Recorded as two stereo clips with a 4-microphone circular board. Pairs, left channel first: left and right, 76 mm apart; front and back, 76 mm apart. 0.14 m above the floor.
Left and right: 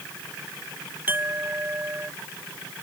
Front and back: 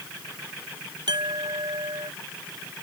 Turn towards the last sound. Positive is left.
turn(degrees=-155)